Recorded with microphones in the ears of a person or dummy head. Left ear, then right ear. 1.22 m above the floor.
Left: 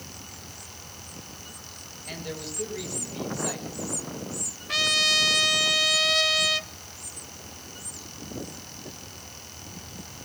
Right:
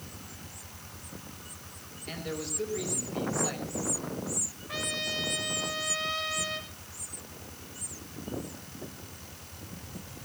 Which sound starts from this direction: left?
A trumpet, at 4.7 s.